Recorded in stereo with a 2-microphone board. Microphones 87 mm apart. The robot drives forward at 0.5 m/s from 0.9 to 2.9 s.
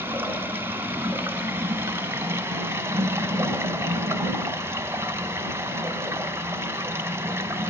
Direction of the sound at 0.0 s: 25° right (ahead or behind).